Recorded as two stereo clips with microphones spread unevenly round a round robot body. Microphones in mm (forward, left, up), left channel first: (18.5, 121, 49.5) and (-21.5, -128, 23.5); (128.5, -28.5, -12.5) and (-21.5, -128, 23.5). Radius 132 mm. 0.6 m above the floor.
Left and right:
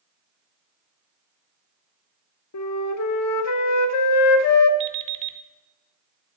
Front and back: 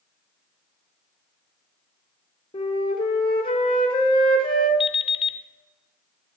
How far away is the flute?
About 0.8 m.